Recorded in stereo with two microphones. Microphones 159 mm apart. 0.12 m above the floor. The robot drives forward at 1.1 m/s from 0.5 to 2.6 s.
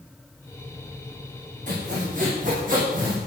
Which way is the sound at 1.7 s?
50° right (ahead or behind).